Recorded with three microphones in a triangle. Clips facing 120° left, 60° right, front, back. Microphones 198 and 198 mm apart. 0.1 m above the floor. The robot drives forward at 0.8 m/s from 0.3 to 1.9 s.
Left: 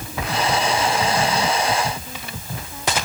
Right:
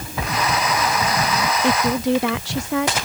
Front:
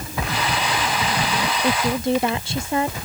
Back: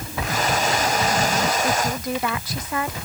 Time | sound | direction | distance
1.6 | a woman speaking | 60° right | ?